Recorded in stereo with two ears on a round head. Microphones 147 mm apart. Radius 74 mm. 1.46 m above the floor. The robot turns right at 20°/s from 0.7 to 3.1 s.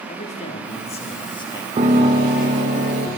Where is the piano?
35° right (ahead or behind), 2 m; by 3.1 s 60° right (ahead or behind), 2 m.